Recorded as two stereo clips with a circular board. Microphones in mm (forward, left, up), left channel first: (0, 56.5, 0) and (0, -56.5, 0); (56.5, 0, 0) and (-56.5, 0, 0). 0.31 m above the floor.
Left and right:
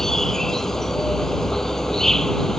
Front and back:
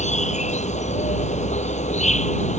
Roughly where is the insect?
Ahead.